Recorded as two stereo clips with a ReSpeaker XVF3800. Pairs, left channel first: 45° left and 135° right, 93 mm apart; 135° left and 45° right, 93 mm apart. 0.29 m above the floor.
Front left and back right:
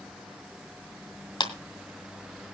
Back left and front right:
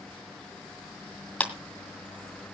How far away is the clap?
About 2.0 m.